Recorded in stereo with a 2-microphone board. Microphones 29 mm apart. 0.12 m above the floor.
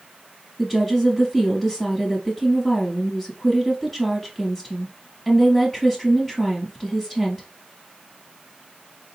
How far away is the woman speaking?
About 1.3 m.